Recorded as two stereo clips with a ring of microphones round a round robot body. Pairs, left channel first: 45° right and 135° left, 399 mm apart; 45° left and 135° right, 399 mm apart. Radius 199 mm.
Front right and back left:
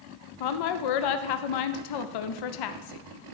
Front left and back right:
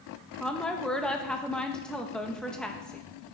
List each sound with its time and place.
0.4 s a woman speaking: 45° right, 0.5 m